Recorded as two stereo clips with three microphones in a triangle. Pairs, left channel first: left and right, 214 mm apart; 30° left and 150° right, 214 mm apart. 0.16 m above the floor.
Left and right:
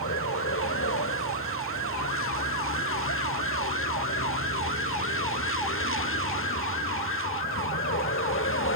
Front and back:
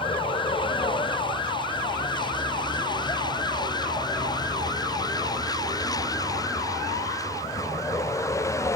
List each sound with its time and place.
0.0 s a vehicle: 95° left; by 8.8 s 105° left